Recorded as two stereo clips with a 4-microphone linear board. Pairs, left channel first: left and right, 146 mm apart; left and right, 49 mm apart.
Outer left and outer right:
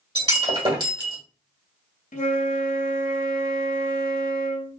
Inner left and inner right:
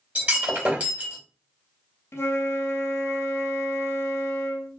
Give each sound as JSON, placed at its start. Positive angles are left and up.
{"t": 0.1, "sound": "breaking glass", "side_deg": -30, "distance_m": 1.5}
{"t": 2.1, "sound": "a flute", "side_deg": 60, "distance_m": 0.6}